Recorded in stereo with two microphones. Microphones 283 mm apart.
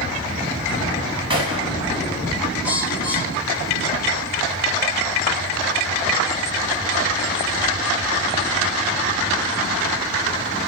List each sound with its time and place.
1.3 s a gunshot: 15° right (ahead or behind), 9 m
2.6 s a bird: 5° right (ahead or behind), 6.5 m